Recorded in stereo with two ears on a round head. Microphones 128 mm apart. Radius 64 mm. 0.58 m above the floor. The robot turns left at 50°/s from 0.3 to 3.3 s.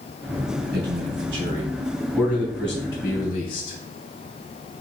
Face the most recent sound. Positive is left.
turn(degrees=55)  # may be behind; listen again after turning